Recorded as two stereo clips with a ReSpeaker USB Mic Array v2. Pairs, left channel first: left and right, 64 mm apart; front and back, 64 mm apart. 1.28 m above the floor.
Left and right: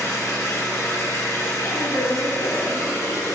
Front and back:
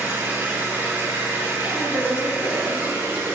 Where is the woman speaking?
105° left, 3 m.